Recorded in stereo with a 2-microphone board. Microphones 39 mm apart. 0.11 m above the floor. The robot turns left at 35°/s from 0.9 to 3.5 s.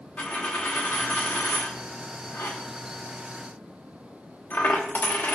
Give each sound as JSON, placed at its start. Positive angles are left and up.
{"t": 0.2, "sound": "a dropped coin", "side_deg": 35, "distance_m": 1.0}